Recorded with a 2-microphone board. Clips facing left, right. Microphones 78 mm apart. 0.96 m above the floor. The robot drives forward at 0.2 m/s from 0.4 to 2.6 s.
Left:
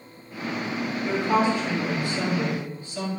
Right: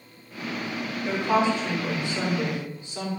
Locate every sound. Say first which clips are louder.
1.1 s a woman speaking: even; 25° right (ahead or behind), 3.5 m; by 3.1 s 20° right (ahead or behind), 4 m